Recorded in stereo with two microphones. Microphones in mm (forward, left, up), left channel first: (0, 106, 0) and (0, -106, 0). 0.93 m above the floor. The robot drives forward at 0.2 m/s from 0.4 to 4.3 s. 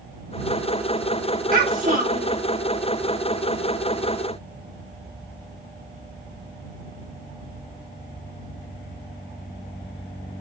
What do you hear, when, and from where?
1.5 s a child speaking: 45° right (ahead or behind), 2 m; by 2.4 s 40° right (ahead or behind), 2 m